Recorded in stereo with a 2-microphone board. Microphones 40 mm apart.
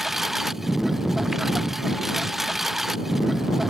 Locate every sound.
0.0 s a lawn mower: 5° right (ahead or behind)